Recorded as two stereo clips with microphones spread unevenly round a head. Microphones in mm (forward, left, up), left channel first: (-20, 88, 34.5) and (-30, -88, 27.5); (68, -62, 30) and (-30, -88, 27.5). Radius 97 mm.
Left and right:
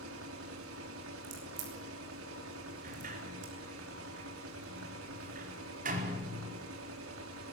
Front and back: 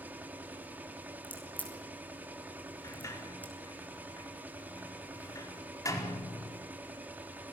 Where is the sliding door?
40° right, 5 m.